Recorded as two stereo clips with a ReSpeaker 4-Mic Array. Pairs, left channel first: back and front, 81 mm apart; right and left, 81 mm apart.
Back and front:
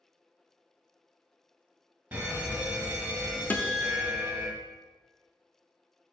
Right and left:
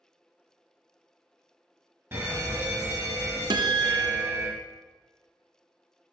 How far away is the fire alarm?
About 1.4 m.